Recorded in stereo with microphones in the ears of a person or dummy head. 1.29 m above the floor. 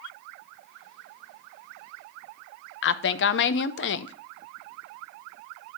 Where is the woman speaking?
55° left (ahead or behind), 0.5 m.